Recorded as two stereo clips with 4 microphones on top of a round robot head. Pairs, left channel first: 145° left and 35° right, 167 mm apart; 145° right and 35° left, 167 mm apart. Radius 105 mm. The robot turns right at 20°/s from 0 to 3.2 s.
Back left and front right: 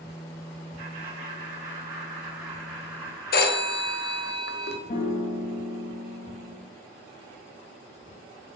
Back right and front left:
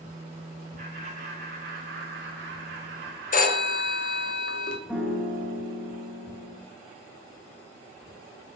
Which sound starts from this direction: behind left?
A piano, at 4.9 s.